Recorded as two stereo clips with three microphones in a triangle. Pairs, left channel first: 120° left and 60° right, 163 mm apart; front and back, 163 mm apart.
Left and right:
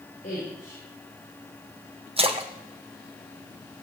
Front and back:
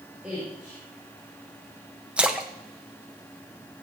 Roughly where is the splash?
Right.